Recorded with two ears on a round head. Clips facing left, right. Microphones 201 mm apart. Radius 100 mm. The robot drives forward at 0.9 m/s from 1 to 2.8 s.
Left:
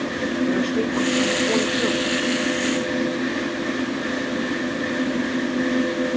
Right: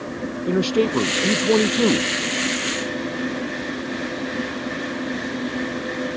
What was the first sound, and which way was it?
A man speaking, 55° right (ahead or behind).